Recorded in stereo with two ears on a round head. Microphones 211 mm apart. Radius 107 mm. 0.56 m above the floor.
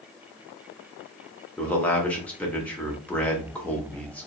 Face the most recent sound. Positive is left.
turn(degrees=5)  # may be behind; listen again after turning